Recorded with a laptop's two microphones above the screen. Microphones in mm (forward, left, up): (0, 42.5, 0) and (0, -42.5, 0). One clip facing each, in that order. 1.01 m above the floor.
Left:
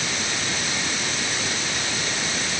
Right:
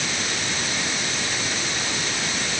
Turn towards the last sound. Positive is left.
No sound to turn to.